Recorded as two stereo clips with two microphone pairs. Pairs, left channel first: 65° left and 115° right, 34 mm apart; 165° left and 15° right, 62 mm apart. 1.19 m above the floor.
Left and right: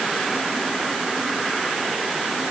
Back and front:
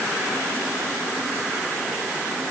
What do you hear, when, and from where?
Only background noise.